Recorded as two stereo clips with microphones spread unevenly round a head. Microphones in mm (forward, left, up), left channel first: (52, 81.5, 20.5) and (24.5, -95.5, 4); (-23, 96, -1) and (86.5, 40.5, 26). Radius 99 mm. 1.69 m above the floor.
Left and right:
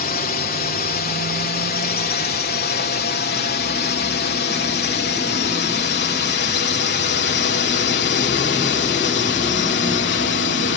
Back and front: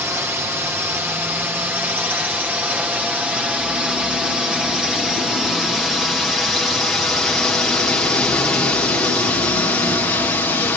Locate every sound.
0.0 s a drone: 45° left; by 10.8 s 85° left